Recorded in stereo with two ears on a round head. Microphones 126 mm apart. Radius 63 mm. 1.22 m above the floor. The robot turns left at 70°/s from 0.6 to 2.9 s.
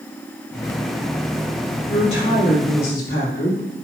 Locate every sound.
1.9 s a woman speaking: 135° left, 3 m; by 3.6 s 65° left, 3 m